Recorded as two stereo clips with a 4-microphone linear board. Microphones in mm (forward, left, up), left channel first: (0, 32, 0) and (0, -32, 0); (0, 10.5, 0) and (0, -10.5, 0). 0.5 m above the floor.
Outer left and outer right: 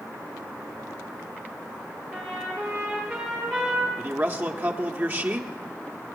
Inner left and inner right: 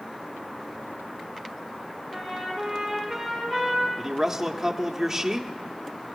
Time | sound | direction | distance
2.1 | a trumpet | 15° right (ahead or behind) | 8 m
4.0 | a man speaking | 35° right (ahead or behind) | 1.1 m